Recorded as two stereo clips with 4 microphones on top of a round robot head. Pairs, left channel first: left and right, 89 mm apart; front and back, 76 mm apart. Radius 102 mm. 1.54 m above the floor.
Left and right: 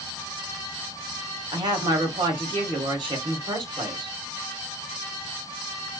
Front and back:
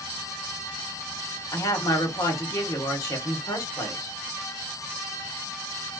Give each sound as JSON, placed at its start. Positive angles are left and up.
{"t": 1.5, "sound": "a woman speaking", "azimuth_deg": -50, "distance_m": 1.3}